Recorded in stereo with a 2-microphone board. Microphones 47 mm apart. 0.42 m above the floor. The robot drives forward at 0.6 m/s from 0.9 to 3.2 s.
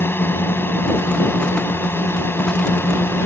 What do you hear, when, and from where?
0.0 s a drone: 50° left (ahead or behind); by 3.3 s 55° left (ahead or behind)